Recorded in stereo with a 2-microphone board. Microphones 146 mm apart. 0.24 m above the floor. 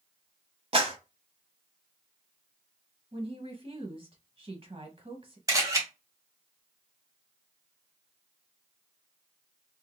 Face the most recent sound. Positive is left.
turn(degrees=-25)  # may be behind; listen again after turning